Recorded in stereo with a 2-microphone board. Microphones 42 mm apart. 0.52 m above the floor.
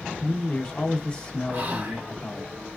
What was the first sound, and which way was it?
A man speaking, 25° left (ahead or behind).